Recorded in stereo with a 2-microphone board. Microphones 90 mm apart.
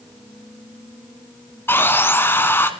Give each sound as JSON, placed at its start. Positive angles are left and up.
{"t": 1.7, "sound": "sawing", "side_deg": 25, "distance_m": 1.5}